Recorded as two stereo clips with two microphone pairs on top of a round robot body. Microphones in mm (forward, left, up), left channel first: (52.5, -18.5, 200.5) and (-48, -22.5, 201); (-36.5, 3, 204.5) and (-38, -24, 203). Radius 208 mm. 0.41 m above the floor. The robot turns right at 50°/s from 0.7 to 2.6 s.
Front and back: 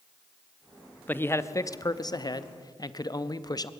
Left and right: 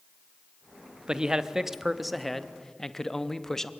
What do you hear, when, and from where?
1.1 s a man speaking: 60° right, 1.1 m; by 3.7 s 15° left, 1.1 m